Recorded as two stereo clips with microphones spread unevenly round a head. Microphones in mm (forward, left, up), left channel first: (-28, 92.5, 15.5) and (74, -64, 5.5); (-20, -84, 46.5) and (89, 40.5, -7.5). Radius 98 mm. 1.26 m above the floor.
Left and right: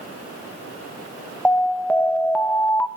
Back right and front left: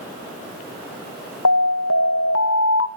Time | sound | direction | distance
1.4 | an alarm | 150° right | 1.0 m